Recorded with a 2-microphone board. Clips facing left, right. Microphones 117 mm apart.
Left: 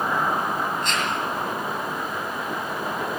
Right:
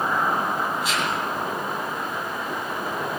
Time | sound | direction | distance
0.8 | whispering | 5° right (ahead or behind) | 2 m